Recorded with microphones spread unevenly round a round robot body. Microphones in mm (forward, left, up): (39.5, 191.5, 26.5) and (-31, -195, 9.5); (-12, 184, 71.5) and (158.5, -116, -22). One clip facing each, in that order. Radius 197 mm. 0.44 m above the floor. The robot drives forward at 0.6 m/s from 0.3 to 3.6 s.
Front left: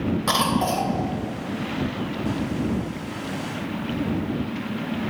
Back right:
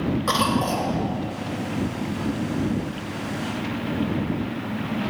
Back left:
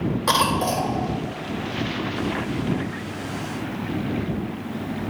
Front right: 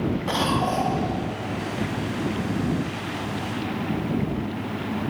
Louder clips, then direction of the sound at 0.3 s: Even, even; 155° left.